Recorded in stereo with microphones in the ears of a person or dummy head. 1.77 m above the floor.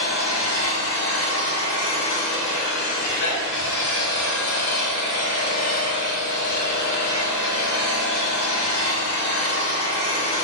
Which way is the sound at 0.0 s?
50° left (ahead or behind).